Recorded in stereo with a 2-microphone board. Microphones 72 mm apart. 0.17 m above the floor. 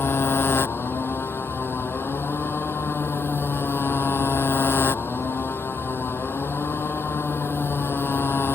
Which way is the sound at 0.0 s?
35° left (ahead or behind).